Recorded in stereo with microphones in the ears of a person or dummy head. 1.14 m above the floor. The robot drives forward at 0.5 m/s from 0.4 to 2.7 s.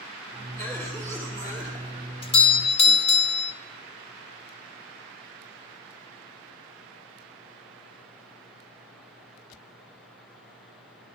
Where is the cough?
10° left (ahead or behind), 3 m; by 2.1 s 15° left (ahead or behind), 2.5 m.